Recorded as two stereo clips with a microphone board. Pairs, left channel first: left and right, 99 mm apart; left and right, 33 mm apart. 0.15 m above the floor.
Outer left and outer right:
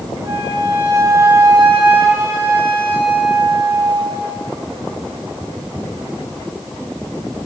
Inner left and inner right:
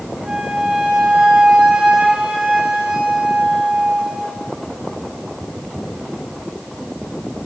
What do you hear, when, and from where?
0.2 s a flute: 45° right (ahead or behind), 3.5 m